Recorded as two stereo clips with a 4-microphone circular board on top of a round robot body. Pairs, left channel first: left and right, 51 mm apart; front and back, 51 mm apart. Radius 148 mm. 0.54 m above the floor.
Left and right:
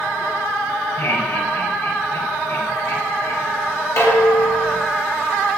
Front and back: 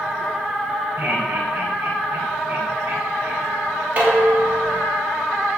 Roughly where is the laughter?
Behind left.